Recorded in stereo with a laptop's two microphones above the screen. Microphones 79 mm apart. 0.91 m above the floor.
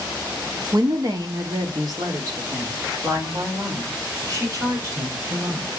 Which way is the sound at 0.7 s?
50° right (ahead or behind).